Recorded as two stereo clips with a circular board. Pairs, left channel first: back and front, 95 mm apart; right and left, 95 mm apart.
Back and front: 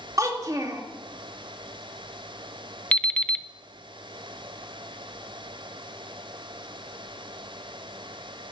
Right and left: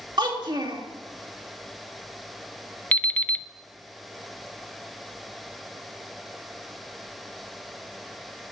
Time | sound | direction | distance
0.2 | a child speaking | 55° left | 1.9 m
2.9 | an alarm clock | 130° right | 0.5 m